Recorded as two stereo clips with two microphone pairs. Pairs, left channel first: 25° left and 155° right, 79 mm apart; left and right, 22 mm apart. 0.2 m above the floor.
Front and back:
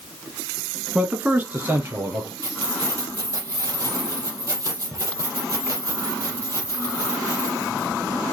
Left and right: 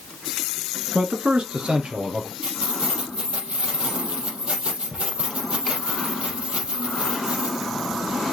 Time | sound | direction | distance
0.9 | a man speaking | 80° right | 1.8 m
2.4 | keys jangling | 110° right | 4 m